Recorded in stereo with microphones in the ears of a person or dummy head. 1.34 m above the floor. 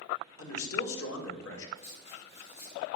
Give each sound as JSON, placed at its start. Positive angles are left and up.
{"t": 0.4, "sound": "a man speaking", "side_deg": 80, "distance_m": 1.9}
{"t": 1.8, "sound": "writing", "side_deg": 35, "distance_m": 1.6}